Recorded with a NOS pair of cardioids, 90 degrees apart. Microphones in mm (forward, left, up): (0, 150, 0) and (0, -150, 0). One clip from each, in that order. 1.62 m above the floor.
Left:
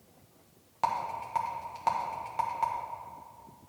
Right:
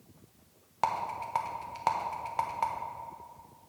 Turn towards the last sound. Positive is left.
turn(degrees=-20)